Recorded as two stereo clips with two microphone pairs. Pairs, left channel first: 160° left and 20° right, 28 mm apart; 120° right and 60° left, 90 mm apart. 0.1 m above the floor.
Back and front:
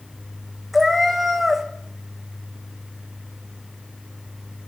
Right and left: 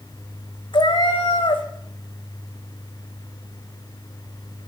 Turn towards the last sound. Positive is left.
turn(degrees=-105)